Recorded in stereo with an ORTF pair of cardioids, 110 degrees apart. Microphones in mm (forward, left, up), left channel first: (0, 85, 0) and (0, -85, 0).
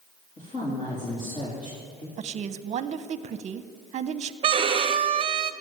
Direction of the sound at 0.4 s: 40° left.